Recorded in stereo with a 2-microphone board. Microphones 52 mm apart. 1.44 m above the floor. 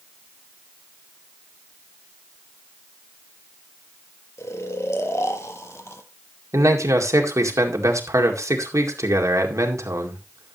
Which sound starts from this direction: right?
A man speaking, at 6.5 s.